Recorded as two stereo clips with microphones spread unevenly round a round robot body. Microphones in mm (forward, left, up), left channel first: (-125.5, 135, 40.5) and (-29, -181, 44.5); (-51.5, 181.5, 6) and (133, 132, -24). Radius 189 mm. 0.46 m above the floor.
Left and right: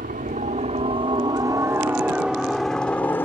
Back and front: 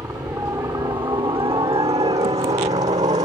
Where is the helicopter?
80° right; by 3.3 s 25° left.